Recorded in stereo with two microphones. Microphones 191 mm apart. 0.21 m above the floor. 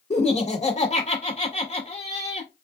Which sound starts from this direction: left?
Laughter, at 0.1 s.